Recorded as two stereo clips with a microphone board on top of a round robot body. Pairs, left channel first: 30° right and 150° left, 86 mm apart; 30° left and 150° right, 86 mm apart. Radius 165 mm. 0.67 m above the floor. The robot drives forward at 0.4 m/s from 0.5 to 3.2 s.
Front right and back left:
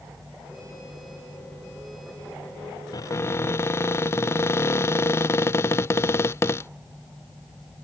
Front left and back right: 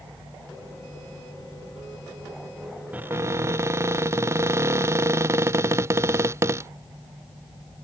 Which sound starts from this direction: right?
A cupboard door, at 2.9 s.